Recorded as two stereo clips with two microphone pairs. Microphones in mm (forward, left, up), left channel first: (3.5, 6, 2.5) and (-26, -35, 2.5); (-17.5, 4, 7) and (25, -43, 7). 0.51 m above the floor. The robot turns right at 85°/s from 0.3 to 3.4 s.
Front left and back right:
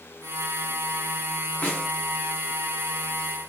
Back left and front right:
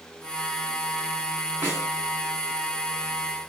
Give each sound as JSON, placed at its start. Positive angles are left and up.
{"t": 1.6, "sound": "a snare drum", "azimuth_deg": 5, "distance_m": 1.5}